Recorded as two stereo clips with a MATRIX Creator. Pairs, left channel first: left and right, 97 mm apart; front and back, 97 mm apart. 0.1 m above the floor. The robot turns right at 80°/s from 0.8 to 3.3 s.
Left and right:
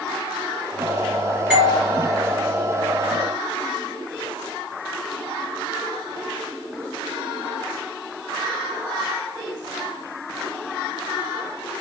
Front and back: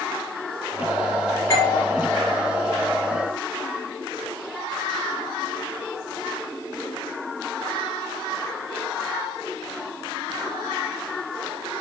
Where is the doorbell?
15° right, 1.8 m; by 1.8 s 10° left, 1.8 m.